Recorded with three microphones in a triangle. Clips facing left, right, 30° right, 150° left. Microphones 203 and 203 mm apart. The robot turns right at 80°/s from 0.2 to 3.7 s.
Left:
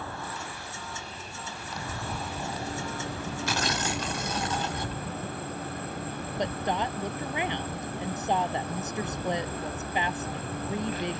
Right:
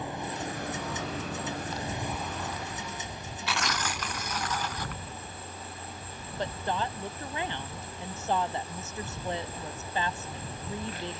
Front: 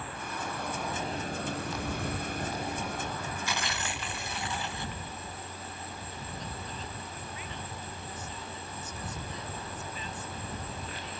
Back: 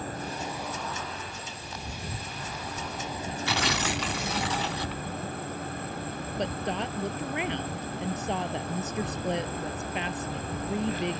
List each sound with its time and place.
0.0 s an insect: 160° right; by 11.2 s 120° left
3.5 s tearing paper: 130° left; by 5.0 s 150° left
6.4 s a woman speaking: 160° left